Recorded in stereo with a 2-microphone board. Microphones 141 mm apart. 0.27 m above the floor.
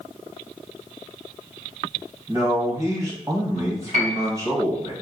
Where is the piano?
60° right (ahead or behind), 1.0 m.